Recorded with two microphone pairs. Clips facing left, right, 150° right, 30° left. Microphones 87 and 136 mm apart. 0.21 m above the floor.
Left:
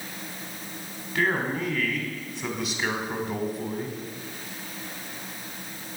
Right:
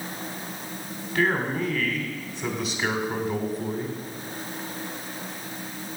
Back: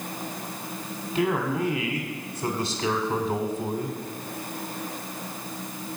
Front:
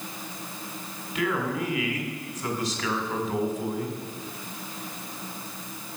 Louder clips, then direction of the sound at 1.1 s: Right 2 dB, back 3 dB; 175° left.